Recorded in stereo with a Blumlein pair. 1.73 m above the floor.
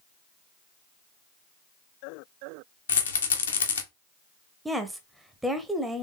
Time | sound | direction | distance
2.9 | a rattle | 70° left | 1.0 m
4.7 | a woman speaking | 5° right | 0.9 m